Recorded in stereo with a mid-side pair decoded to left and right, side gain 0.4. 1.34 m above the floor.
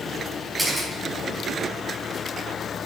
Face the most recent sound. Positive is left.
turn(degrees=-20)